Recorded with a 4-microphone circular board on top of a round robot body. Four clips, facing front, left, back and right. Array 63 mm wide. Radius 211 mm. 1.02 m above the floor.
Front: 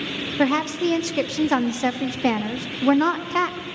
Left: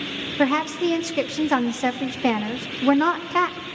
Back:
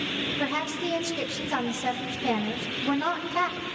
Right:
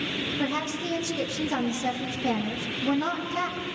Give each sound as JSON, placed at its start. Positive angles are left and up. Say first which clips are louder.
{"t": 0.4, "sound": "a woman speaking", "louder": "left 11 dB, front 11 dB", "azimuth_deg": 55, "distance_m": 2.5}